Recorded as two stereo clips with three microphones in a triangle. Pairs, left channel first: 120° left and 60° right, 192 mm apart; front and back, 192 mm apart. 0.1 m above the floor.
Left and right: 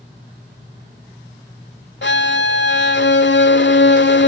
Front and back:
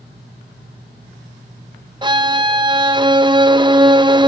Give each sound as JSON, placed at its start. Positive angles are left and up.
{"t": 2.0, "sound": "a violin", "azimuth_deg": 115, "distance_m": 0.9}